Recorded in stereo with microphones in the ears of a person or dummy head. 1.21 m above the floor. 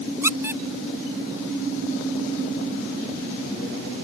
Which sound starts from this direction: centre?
A squeak, at 0.2 s.